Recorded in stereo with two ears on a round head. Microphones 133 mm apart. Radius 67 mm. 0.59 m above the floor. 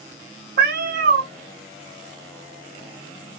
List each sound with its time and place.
0.6 s a cat meowing: 60° right (ahead or behind), 0.7 m